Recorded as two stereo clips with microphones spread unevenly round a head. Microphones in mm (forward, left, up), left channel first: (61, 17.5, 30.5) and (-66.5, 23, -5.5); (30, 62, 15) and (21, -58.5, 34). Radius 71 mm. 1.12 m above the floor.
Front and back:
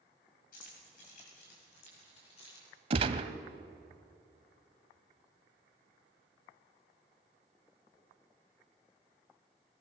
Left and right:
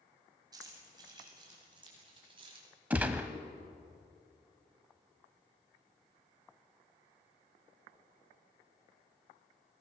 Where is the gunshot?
140° right, 1.0 m.